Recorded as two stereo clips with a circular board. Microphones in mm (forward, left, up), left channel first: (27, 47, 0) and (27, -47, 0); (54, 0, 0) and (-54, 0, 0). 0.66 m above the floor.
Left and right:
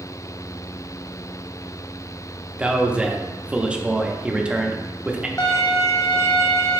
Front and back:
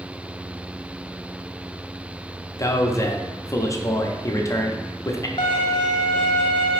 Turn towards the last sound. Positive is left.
turn(degrees=35)